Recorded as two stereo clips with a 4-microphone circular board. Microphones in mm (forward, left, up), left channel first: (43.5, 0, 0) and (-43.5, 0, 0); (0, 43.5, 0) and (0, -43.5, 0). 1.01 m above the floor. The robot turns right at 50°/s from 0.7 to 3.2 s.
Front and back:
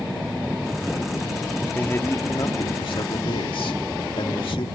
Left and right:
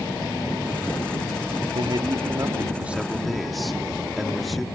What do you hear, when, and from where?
1.8 s a man speaking: 70° right; by 4.7 s straight ahead